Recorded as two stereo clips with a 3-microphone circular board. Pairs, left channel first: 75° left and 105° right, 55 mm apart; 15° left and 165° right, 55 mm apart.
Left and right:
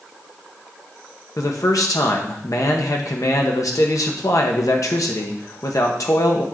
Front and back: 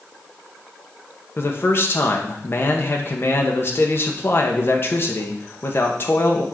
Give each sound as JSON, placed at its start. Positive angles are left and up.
{"t": 1.4, "sound": "a man speaking", "azimuth_deg": 65, "distance_m": 1.4}